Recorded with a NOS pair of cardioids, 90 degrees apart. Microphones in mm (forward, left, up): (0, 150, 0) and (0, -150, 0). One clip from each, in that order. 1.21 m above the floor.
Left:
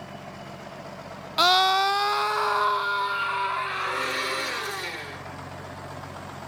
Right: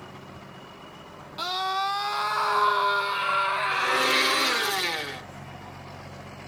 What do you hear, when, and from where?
1.4 s a scream: 55° left, 0.6 m; by 4.7 s 30° right, 1.9 m
3.7 s a blender: 55° right, 1.9 m